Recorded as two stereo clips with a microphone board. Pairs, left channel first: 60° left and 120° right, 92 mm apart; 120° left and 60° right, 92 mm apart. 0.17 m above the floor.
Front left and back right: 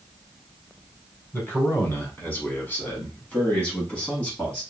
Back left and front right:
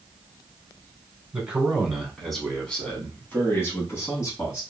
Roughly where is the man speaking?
Ahead.